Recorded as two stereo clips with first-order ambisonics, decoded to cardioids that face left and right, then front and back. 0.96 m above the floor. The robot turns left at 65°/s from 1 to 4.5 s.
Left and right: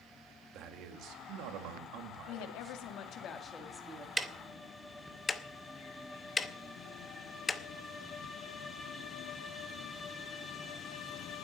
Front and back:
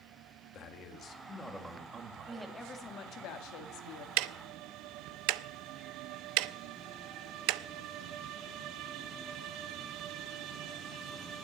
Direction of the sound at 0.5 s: 50° right.